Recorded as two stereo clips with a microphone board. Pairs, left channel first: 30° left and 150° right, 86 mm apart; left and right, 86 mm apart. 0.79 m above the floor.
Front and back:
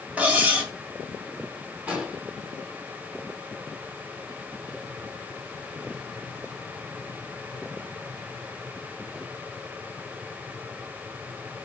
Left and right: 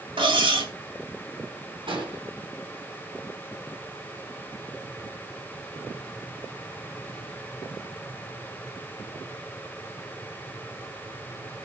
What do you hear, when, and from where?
0.2 s cutlery clinking: 75° right, 3 m
1.9 s an explosion: 75° right, 3.5 m